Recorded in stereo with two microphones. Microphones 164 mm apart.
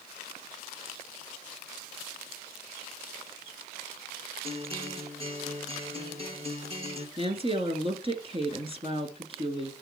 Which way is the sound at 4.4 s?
35° right (ahead or behind).